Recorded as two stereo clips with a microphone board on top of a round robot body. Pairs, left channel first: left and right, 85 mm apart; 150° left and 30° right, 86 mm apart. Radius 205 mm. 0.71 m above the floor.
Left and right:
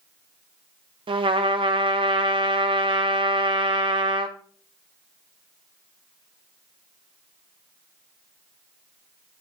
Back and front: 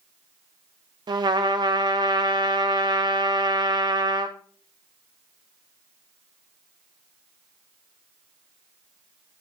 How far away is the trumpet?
About 0.5 m.